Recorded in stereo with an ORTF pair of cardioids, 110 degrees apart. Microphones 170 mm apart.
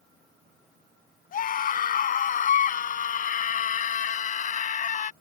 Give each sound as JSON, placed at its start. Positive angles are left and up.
{"t": 1.3, "sound": "a scream", "azimuth_deg": 55}